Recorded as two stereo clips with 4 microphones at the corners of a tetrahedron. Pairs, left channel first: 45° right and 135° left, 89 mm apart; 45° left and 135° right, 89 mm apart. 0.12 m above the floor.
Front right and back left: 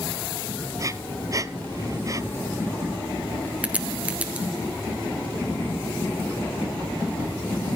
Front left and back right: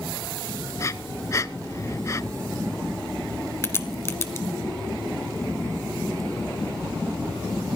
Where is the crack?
75° left, 1.3 m.